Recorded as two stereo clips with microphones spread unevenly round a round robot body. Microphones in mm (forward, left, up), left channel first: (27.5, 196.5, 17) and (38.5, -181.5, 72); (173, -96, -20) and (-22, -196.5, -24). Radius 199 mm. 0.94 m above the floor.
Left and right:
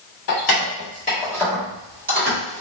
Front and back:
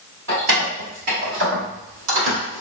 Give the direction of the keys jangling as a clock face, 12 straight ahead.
7 o'clock.